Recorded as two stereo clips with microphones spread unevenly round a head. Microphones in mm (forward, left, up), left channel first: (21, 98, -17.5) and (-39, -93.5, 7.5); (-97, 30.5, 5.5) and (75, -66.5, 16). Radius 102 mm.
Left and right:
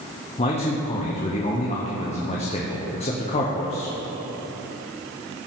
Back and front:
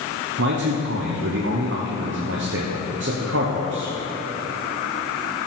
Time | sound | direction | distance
0.4 | a man speaking | 10° left | 0.8 m